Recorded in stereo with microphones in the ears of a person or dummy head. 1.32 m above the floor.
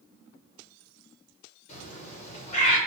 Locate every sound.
1.7 s a bird: 40° left (ahead or behind), 3.5 m